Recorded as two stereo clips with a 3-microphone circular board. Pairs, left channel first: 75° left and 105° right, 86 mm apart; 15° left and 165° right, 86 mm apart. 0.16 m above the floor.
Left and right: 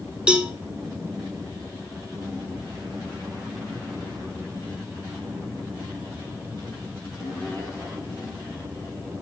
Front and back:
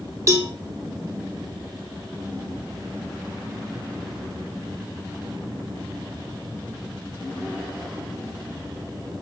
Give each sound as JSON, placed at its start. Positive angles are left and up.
{"t": 0.3, "sound": "a cowbell", "azimuth_deg": -175, "distance_m": 0.7}